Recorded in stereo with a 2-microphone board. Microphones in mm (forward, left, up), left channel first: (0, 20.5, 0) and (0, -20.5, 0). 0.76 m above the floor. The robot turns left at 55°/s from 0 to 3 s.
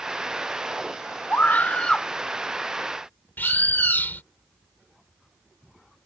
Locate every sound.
1.3 s a scream: 60° left; by 2.1 s 20° left
3.4 s a bird: 50° left (ahead or behind)